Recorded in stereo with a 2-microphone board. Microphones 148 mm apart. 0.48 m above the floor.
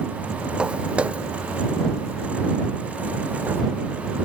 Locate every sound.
0.6 s footsteps: 5° right (ahead or behind); by 3.6 s 15° right (ahead or behind)